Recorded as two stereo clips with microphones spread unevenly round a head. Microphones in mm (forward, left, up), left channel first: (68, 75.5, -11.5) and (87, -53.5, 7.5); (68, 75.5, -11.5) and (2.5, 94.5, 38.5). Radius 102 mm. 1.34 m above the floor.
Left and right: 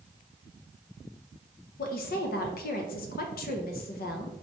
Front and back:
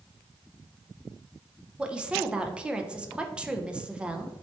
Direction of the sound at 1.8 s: 110° left.